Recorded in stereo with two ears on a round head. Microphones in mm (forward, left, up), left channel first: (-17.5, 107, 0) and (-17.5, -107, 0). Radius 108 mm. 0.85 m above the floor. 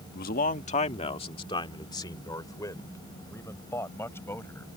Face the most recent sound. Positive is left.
turn(degrees=10)  # may be behind; listen again after turning